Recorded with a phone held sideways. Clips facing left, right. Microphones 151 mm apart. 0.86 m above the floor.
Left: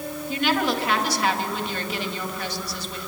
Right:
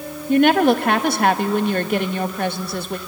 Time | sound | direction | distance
0.3 | a woman speaking | 55° right (ahead or behind) | 1.4 m